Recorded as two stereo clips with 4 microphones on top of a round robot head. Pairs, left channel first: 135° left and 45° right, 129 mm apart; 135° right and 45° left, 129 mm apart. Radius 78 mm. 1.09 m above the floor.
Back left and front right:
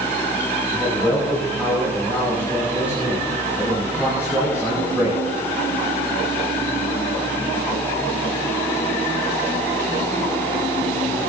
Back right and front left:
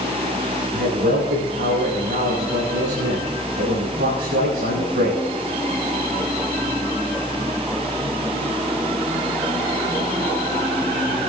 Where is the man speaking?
35° left, 6.5 m.